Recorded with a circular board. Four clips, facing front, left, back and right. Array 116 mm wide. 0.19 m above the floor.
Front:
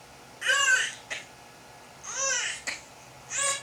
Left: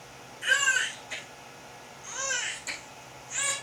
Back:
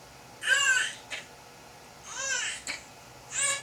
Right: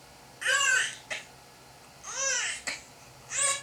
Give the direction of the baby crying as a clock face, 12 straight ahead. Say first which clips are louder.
Even, front 2 dB; 2 o'clock.